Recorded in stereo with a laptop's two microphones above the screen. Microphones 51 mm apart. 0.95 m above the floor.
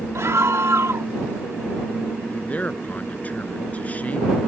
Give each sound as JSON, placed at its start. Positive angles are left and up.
{"t": 0.1, "sound": "a scream", "side_deg": -65}
{"t": 2.3, "sound": "a man speaking", "side_deg": 30}